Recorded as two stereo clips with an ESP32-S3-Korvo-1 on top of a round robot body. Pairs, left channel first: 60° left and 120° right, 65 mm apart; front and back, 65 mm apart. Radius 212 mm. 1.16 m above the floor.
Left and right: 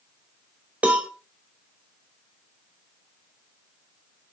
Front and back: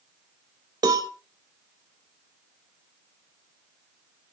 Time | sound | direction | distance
0.8 | a cowbell | 170° left | 0.7 m